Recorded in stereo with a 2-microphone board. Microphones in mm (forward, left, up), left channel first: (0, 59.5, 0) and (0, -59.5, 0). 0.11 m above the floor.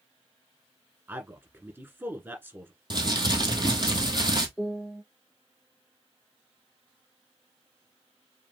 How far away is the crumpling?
About 1.5 m.